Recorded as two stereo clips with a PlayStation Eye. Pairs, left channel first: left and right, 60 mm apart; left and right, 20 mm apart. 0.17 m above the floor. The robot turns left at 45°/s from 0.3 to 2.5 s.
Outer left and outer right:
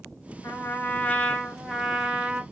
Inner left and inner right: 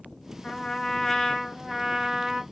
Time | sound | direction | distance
0.4 | a trumpet | 60° left | 1.0 m